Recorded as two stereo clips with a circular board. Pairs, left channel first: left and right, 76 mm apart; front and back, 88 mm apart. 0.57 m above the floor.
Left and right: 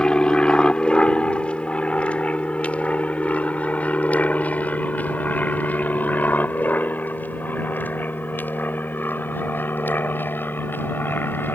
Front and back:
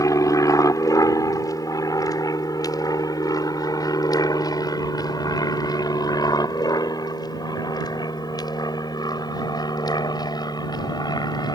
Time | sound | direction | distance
0.0 | an aircraft | 15° left | ?